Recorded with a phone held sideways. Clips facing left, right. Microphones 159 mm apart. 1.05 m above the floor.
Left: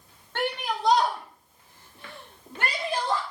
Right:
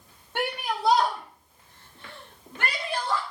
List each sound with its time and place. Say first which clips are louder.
0.3 s a shout: even; 15° right (ahead or behind), 2.5 m; by 3.2 s 40° left (ahead or behind), 3 m